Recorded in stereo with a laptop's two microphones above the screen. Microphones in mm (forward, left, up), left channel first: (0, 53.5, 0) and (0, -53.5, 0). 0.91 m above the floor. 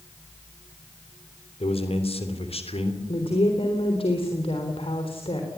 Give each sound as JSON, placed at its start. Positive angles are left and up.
{"t": 1.6, "sound": "a man speaking", "side_deg": 65, "distance_m": 3.0}
{"t": 3.1, "sound": "a woman speaking", "side_deg": 60, "distance_m": 3.5}